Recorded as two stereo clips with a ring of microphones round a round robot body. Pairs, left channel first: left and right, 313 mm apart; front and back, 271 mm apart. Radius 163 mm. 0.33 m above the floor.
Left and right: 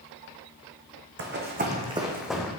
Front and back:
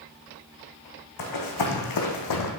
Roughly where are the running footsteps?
Ahead right.